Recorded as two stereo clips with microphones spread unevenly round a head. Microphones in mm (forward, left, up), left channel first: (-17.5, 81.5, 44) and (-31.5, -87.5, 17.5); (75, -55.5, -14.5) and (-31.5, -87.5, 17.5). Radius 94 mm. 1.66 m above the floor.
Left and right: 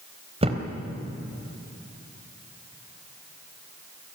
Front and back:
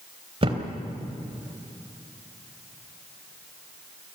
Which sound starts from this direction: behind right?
A thud, at 0.4 s.